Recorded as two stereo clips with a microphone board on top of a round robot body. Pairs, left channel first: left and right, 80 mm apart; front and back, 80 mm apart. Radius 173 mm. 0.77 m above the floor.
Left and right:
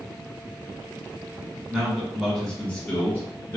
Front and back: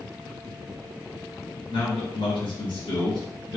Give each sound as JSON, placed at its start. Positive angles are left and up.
{"t": 1.7, "sound": "a man speaking", "azimuth_deg": -10, "distance_m": 1.4}